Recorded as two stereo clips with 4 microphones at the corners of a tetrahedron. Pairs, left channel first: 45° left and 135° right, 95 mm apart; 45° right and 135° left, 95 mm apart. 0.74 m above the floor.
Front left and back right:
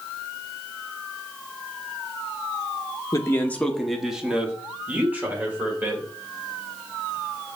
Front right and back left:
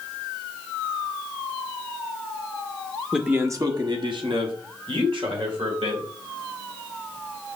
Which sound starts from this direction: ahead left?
A man speaking, at 3.1 s.